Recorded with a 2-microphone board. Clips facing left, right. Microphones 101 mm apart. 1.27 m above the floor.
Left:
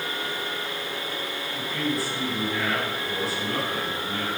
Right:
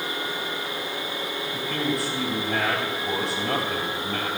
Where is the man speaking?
80° right, 7.5 m.